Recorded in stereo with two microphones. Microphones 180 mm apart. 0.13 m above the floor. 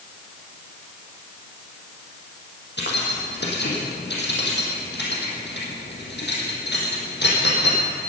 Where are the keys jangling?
75° left (ahead or behind), 4 m.